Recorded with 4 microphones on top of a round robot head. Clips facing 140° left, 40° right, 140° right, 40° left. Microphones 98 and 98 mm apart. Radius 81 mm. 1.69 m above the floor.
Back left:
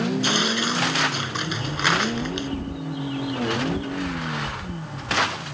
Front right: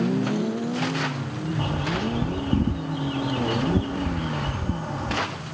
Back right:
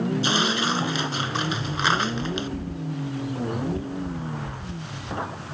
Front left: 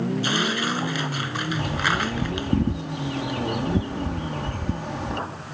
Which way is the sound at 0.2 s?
150° left.